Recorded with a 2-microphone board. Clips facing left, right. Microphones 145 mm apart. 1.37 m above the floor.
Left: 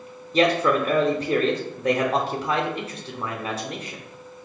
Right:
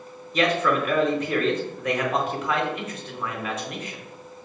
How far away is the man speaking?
About 0.7 m.